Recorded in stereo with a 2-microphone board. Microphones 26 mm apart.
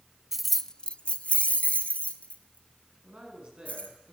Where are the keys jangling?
15° right (ahead or behind), 0.8 m; by 3.9 s 65° left (ahead or behind), 5 m.